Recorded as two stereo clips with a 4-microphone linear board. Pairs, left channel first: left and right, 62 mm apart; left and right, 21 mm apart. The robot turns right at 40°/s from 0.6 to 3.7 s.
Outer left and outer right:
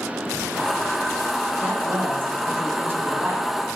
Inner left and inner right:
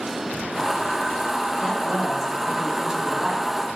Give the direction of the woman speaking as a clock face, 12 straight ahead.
4 o'clock.